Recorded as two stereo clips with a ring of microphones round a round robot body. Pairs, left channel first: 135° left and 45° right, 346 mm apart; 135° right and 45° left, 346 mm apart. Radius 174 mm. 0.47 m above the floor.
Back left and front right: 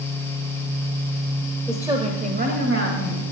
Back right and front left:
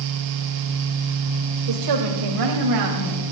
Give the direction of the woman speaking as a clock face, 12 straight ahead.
11 o'clock.